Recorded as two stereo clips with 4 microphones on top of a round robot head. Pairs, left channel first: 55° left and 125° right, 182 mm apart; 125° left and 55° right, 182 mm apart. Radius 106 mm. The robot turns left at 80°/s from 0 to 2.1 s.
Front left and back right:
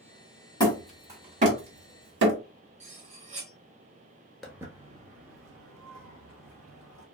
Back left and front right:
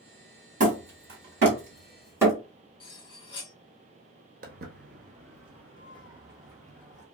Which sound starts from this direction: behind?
Cutlery clinking, at 2.8 s.